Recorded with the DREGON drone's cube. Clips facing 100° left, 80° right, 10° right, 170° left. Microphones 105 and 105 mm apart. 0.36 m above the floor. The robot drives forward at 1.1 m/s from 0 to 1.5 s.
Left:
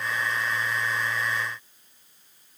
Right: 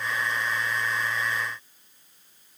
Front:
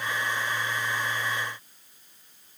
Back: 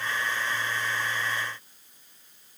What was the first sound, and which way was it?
Only background noise.